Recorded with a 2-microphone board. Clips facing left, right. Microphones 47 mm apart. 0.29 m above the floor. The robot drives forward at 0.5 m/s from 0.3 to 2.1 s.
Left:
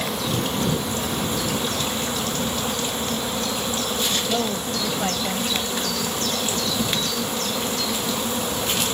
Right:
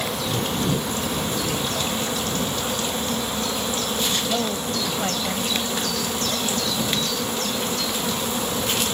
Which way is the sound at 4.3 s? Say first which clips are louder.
Even; 5° left (ahead or behind).